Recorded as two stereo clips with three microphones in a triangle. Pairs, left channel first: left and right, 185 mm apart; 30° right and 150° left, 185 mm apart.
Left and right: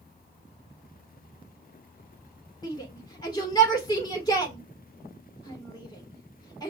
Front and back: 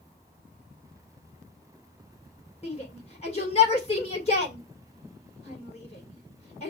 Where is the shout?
20° left, 2 m.